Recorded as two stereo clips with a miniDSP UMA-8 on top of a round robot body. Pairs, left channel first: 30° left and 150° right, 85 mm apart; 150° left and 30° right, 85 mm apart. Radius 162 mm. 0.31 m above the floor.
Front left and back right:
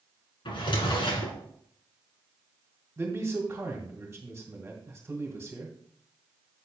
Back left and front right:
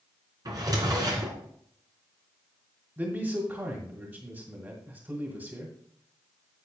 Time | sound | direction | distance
0.5 | a drawer | 10° left | 2.5 m
3.0 | a man speaking | 85° right | 1.8 m